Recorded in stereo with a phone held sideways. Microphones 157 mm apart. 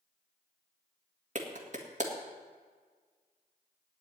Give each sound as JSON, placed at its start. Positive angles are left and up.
{"t": 1.4, "sound": "a clap", "side_deg": -50, "distance_m": 1.7}